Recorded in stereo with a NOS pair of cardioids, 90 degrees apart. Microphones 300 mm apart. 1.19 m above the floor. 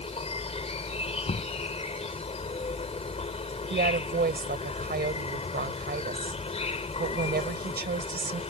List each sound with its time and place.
0.0 s an insect: 20° left
1.3 s knocking: 20° left
3.7 s a woman speaking: 30° right